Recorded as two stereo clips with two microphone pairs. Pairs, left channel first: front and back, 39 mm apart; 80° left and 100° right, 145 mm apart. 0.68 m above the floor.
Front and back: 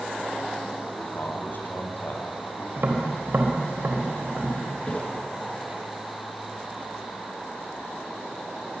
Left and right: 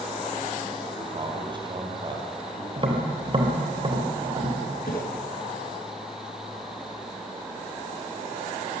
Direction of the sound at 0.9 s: 45° right.